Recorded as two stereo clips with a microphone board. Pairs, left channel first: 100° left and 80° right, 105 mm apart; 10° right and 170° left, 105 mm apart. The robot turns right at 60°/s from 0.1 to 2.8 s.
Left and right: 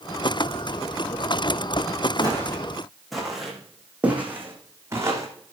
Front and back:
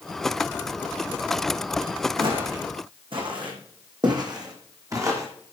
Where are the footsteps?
145° left, 3.5 m; by 5.3 s 135° right, 3 m.